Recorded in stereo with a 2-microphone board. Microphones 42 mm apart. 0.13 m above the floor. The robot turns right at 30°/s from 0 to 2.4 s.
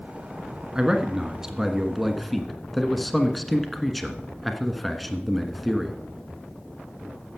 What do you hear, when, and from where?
0.8 s a man speaking: 15° right (ahead or behind), 1.2 m; by 6.0 s centre (ahead or behind), 1.2 m